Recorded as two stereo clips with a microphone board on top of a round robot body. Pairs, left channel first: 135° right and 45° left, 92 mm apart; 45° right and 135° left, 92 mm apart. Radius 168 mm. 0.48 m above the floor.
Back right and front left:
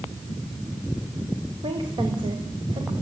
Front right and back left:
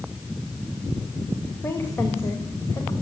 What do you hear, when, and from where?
1.6 s a woman speaking: 25° left, 2.5 m; by 2.9 s 10° left, 3 m